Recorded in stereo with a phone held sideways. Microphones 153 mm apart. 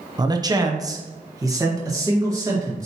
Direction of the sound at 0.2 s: 25° right (ahead or behind).